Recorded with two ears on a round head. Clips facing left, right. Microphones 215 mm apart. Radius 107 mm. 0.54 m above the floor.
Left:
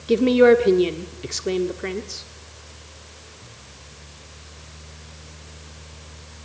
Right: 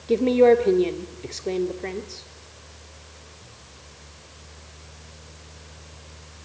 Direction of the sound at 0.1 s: 20° left (ahead or behind).